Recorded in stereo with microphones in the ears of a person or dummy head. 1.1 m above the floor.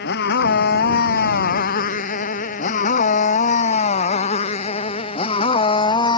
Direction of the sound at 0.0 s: 55° left (ahead or behind).